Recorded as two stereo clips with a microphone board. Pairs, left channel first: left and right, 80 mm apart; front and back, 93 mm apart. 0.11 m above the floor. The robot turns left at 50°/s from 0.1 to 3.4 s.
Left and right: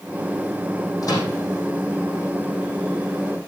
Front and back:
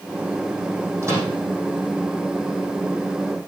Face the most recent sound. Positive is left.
turn(degrees=5)